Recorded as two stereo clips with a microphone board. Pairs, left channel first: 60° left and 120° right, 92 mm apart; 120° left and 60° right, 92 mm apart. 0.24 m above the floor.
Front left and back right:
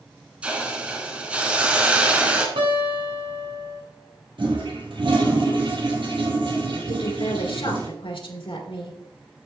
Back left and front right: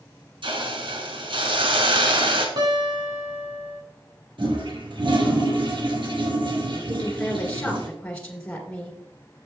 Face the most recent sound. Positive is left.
turn(degrees=45)